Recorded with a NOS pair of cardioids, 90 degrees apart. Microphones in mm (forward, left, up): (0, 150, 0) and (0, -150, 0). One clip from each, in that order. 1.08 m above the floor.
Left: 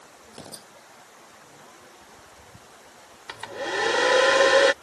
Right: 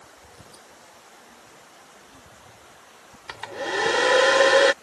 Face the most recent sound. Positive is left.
turn(degrees=-10)